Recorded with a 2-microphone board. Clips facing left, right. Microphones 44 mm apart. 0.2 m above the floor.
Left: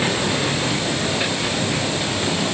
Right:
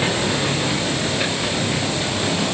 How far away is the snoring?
No snoring in this recording.